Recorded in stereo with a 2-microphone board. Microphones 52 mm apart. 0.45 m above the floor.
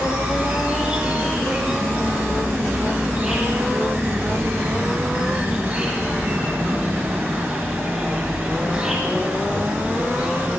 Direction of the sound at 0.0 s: 10° right (ahead or behind).